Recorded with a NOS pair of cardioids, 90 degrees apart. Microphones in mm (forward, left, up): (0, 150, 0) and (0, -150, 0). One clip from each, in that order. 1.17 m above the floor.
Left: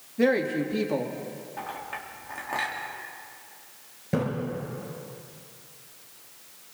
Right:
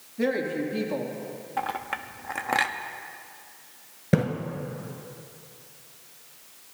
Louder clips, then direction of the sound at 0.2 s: Left 3 dB; 20° left.